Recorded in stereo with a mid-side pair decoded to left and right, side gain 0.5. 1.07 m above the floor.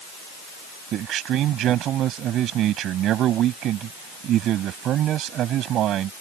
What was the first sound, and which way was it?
A man speaking, 65° right.